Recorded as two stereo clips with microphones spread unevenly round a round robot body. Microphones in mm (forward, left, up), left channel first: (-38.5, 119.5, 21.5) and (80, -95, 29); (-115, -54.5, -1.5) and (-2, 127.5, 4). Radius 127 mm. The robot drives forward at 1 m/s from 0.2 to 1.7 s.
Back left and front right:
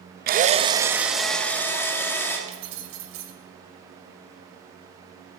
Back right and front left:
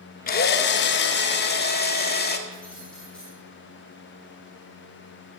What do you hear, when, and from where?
0.3 s a drill: 95° right, 0.8 m; by 2.4 s 160° right, 1.7 m
2.5 s keys jangling: 35° right, 2.5 m